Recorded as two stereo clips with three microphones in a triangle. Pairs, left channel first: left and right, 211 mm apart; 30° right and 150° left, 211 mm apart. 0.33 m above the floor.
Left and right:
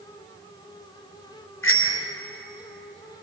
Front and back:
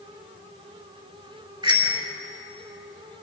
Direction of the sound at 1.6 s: 80° left.